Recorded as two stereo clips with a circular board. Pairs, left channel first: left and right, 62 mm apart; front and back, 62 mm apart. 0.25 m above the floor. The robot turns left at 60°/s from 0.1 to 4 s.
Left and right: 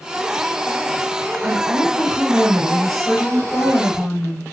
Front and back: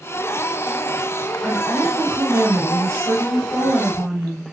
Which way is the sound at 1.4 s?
90° right.